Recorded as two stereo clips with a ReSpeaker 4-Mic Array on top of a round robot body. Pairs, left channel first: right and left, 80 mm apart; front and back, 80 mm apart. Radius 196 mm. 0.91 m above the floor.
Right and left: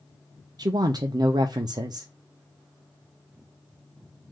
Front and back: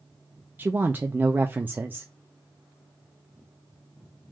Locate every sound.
0.6 s a woman speaking: 115° left, 0.6 m